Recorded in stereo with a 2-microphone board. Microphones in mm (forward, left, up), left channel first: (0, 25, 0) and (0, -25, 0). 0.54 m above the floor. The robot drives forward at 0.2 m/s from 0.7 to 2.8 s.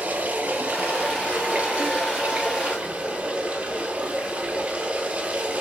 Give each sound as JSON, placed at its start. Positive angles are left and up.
{"t": 0.0, "sound": "running water", "side_deg": -35, "distance_m": 1.3}